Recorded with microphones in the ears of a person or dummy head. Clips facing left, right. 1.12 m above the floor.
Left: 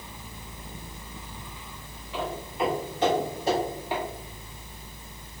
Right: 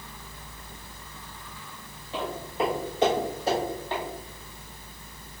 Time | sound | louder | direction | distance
2.1 | footsteps | right 1 dB | 25° right (ahead or behind) | 1.9 m